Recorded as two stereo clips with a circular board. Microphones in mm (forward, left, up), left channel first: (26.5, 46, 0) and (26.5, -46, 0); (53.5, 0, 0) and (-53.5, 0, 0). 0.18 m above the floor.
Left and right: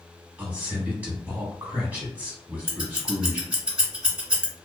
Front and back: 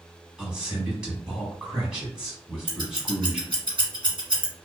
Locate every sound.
0.4 s a man speaking: 115° right, 1.0 m
2.7 s scissors: 170° right, 1.3 m